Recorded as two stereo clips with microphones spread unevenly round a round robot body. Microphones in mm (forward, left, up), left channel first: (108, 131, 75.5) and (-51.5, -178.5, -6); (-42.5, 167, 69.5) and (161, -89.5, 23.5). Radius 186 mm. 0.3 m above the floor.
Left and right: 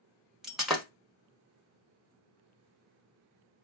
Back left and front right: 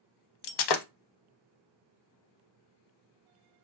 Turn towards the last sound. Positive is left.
turn(degrees=155)